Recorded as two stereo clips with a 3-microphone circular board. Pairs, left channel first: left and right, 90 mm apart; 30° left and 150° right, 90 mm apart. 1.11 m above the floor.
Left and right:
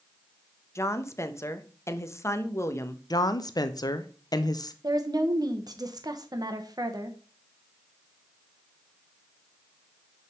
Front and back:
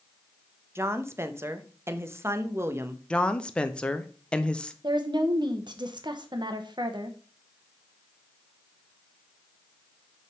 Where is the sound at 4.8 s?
130° right, 1.0 m.